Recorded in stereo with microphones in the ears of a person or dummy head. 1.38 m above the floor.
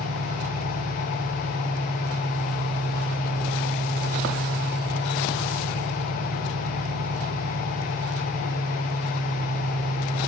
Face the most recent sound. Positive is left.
turn(degrees=-45)  # may be behind; listen again after turning